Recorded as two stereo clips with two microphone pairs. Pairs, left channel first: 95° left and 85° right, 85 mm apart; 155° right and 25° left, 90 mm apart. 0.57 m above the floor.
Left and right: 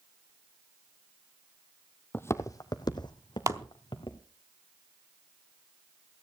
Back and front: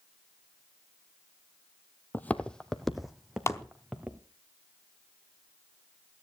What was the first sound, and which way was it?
Footsteps, 150° left.